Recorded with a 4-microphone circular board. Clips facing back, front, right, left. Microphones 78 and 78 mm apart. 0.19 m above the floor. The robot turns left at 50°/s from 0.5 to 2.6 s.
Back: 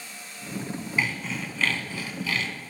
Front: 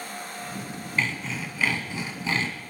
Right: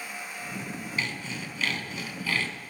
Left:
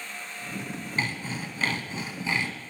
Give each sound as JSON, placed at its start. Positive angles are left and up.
{"t": 1.0, "sound": "sawing", "azimuth_deg": 105, "distance_m": 1.9}